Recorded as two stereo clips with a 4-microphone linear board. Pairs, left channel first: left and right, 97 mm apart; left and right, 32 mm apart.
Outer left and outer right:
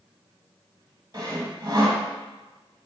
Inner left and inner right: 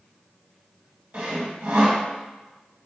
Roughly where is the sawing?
Right.